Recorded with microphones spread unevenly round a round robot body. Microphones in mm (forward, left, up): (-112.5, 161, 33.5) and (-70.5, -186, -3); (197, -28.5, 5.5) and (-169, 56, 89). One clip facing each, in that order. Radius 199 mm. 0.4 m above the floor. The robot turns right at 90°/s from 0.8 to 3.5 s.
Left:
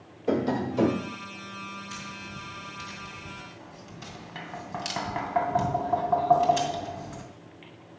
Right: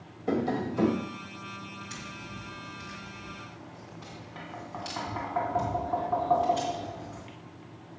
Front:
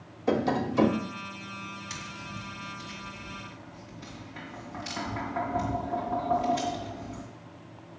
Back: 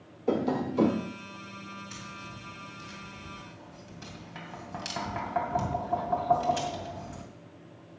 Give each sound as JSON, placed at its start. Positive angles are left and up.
{"t": 0.3, "sound": "tapping", "azimuth_deg": 0, "distance_m": 1.5}
{"t": 1.9, "sound": "tapping", "azimuth_deg": -5, "distance_m": 2.5}